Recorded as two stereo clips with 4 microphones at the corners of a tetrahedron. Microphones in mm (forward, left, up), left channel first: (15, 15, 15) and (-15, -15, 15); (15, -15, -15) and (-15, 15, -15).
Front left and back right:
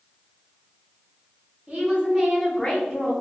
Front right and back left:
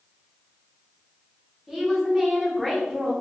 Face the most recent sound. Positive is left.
turn(degrees=60)